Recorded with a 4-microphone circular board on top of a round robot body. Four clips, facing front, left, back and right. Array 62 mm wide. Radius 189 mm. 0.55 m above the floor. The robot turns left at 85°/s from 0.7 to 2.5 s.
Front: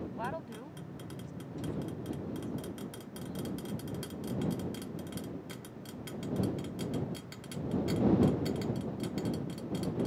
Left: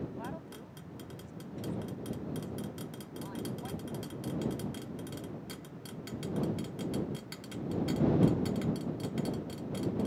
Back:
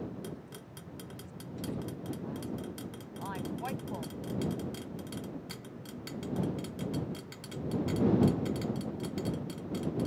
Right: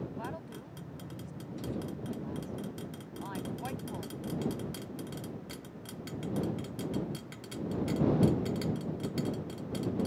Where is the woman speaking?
5° right; by 4.2 s 160° right.